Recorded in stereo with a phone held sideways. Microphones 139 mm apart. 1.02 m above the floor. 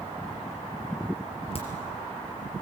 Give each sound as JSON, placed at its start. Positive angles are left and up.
{"t": 1.6, "sound": "a crack", "side_deg": 50, "distance_m": 4.5}